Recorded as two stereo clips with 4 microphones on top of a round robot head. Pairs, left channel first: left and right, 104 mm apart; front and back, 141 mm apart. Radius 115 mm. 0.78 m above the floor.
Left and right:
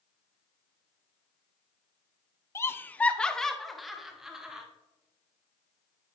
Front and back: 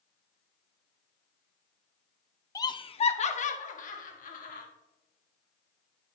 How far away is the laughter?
About 0.8 m.